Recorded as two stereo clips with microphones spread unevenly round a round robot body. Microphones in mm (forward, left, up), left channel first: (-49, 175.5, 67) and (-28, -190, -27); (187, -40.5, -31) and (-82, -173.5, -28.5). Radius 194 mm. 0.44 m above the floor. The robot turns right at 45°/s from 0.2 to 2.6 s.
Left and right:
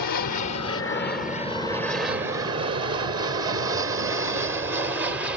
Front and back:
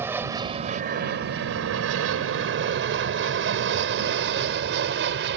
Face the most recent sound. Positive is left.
turn(degrees=-150)